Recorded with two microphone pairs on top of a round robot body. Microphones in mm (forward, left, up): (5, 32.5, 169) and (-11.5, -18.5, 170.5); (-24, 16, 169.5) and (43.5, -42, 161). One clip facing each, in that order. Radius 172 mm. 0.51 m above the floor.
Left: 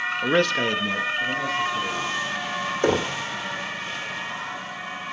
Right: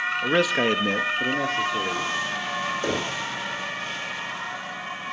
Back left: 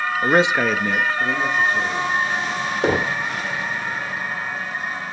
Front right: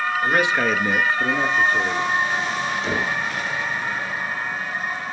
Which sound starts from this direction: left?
Knocking, at 2.8 s.